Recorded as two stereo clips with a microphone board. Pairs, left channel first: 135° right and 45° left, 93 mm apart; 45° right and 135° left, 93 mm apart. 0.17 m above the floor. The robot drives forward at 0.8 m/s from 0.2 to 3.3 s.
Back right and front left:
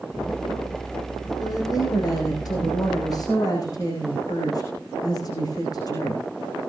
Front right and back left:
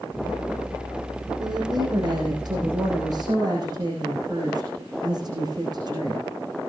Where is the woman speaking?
175° left, 6 m.